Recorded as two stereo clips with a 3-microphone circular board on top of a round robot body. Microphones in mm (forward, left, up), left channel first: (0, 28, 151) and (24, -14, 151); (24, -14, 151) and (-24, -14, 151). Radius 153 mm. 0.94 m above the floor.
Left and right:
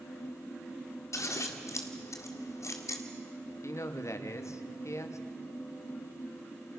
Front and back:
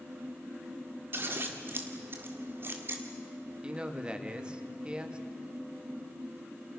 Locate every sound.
1.1 s scissors: 135° left, 1.9 m
3.6 s a man speaking: 110° left, 1.9 m